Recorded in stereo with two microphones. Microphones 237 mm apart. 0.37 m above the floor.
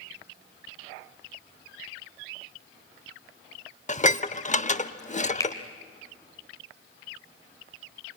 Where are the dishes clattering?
30° left (ahead or behind), 0.6 m.